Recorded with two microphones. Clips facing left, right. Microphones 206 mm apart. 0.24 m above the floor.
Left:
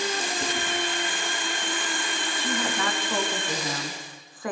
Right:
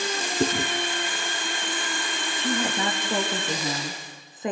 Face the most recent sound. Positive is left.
turn(degrees=-20)  # may be behind; listen again after turning